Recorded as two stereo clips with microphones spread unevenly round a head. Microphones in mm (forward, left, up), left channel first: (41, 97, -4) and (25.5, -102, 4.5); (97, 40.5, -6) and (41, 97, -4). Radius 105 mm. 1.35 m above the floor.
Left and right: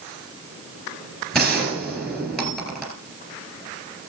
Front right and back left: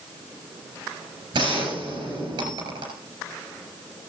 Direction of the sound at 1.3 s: 175° left.